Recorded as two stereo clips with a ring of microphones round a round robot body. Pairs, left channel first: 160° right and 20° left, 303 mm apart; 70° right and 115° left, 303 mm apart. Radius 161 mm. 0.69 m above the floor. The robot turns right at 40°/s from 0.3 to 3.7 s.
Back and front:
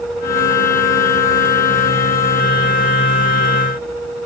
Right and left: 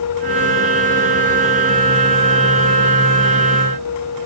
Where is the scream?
No scream in this recording.